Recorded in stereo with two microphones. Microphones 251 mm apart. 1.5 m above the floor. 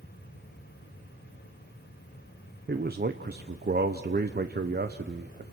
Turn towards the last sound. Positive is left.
turn(degrees=-40)  # may be behind; listen again after turning